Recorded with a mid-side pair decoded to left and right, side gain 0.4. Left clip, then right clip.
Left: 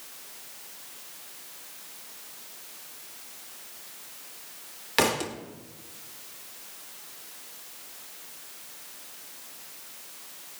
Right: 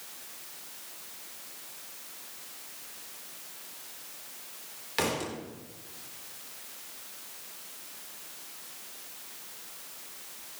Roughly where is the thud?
Ahead left.